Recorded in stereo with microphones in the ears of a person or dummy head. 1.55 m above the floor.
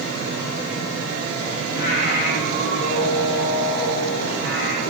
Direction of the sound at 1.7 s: 55° left (ahead or behind).